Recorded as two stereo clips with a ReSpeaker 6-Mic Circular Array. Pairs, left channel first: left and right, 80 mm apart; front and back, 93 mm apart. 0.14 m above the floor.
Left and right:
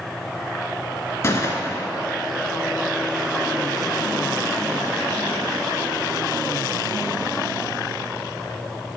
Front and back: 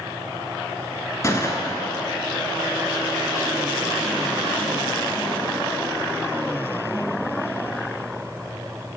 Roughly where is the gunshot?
Ahead left.